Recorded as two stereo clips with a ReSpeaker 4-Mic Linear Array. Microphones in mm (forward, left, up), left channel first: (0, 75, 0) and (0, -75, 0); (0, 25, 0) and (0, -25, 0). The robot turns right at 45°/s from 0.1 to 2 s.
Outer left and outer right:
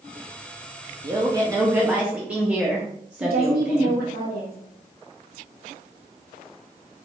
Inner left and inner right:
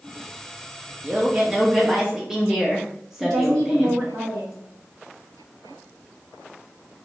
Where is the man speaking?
60° right, 0.5 m; by 4.0 s 15° right, 0.5 m.